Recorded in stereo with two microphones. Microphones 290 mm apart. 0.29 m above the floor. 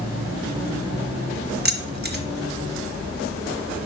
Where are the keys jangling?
35° right (ahead or behind), 0.8 m.